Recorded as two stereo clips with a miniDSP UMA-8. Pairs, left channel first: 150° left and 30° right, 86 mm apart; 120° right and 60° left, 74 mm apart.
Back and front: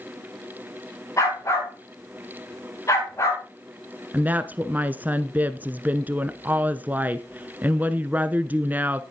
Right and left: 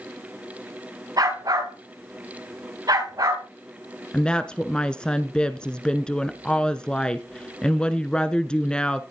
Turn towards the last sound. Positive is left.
turn(degrees=-60)